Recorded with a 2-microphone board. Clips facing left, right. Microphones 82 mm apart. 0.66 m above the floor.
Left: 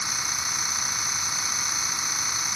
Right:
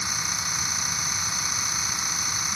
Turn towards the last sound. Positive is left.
No sound to turn to.